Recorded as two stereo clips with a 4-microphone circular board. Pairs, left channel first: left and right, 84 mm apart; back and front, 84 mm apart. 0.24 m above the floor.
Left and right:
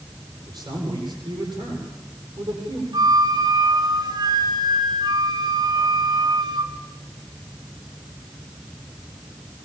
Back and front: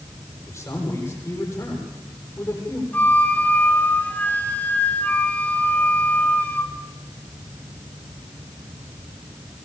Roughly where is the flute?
Right.